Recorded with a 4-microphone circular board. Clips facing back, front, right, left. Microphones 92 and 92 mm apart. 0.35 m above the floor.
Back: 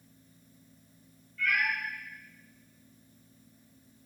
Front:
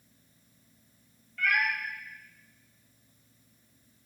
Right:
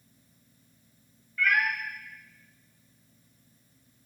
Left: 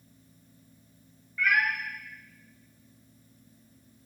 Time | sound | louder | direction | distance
1.4 | a cat meowing | front 2 dB, even | 5° left | 1.2 m